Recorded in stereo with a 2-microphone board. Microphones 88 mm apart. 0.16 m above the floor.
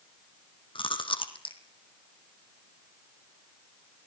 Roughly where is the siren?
I don't hear a siren.